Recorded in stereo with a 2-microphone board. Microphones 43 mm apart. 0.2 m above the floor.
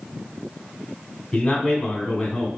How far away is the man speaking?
About 1.3 m.